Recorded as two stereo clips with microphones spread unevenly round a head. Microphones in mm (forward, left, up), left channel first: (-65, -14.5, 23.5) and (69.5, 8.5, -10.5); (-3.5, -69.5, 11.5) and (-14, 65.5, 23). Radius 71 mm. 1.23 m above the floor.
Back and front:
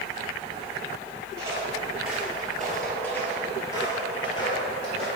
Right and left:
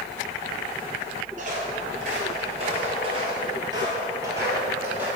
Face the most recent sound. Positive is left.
turn(degrees=165)